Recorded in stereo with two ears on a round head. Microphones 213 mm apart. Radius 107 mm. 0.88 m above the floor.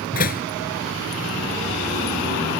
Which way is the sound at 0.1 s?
40° left (ahead or behind).